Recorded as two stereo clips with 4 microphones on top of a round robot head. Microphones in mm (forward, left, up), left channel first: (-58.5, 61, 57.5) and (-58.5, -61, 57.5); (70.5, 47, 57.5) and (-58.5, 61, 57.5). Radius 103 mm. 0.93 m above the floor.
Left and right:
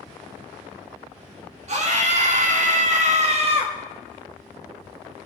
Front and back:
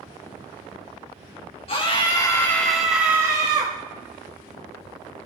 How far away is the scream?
About 1.7 m.